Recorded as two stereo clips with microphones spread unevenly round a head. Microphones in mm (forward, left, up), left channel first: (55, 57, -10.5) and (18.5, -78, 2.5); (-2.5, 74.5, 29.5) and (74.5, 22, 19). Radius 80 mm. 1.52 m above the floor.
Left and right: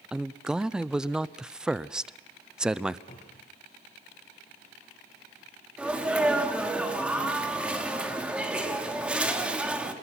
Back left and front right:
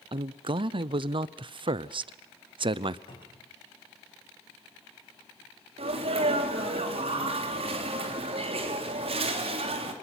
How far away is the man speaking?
About 0.7 m.